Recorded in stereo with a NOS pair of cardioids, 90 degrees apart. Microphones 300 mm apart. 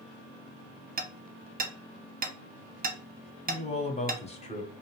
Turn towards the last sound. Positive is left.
turn(degrees=20)